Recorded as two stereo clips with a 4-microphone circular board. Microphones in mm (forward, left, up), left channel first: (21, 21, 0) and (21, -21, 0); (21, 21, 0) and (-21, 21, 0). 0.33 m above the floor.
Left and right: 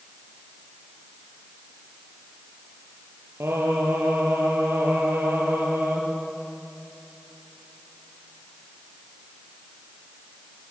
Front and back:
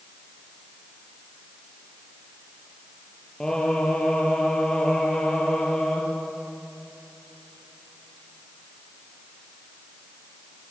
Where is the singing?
75° right, 6 m.